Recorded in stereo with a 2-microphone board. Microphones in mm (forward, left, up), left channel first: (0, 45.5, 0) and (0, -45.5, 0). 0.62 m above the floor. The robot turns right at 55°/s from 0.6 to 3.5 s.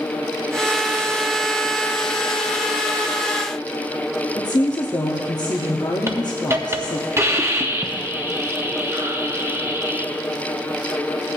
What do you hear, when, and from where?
4.3 s a woman speaking: 45° left (ahead or behind), 0.8 m
6.1 s a hiss: 30° right (ahead or behind), 0.8 m